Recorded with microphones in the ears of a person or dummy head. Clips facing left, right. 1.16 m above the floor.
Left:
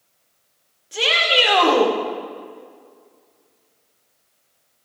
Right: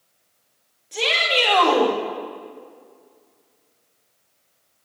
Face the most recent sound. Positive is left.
turn(degrees=20)  # may be behind; listen again after turning